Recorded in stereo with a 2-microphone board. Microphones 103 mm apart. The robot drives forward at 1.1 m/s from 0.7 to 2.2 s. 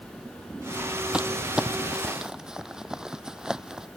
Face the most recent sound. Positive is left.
turn(degrees=-5)  # may be behind; listen again after turning